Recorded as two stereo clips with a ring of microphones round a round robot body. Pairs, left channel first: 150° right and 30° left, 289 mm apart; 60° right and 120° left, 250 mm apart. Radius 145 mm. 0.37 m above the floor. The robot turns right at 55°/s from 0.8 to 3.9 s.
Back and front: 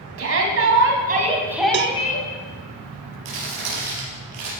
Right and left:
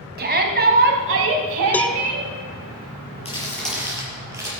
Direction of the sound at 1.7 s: 20° left.